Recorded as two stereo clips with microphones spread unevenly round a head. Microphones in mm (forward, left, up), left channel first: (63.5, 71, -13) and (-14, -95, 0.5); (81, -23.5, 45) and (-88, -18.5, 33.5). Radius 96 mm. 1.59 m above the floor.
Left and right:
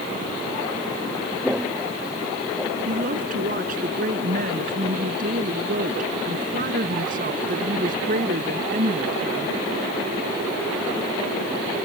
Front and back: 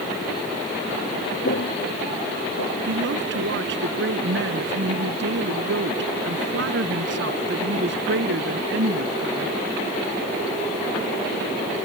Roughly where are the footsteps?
Ahead right.